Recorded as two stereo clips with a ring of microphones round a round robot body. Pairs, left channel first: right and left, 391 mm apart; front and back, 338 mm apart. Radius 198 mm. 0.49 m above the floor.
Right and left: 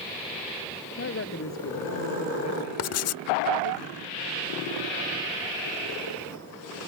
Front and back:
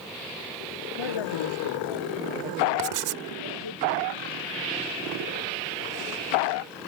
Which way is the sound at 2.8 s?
140° right.